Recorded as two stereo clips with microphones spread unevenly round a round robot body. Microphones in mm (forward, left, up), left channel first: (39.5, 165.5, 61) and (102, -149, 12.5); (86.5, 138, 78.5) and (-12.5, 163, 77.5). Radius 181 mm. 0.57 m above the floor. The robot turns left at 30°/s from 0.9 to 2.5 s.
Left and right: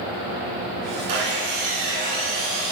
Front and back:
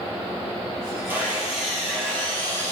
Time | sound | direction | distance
1.1 | sawing | 85° right | 1.7 m